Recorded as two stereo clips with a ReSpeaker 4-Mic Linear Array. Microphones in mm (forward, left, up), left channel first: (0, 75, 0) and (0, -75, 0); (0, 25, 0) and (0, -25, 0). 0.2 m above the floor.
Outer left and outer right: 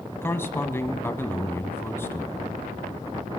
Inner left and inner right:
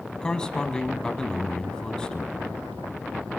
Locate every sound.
0.2 s a man speaking: 15° left (ahead or behind), 1.3 m